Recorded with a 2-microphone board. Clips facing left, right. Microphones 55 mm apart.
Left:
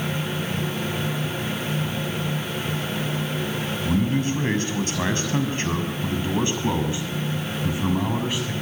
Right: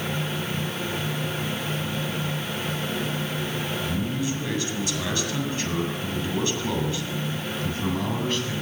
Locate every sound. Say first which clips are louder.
3.9 s a man speaking: left 9 dB; 50° left (ahead or behind), 7 m; by 8.5 s 10° left (ahead or behind), 7.5 m